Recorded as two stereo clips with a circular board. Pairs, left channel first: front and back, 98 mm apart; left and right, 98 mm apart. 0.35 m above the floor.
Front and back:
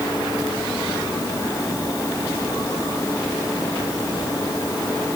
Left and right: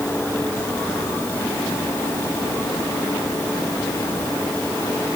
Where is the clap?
No clap in this recording.